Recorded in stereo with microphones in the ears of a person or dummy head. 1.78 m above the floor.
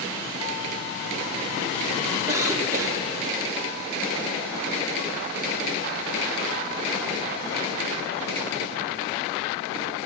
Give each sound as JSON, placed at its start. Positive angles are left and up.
{"t": 2.3, "sound": "a cough", "side_deg": -15, "distance_m": 2.5}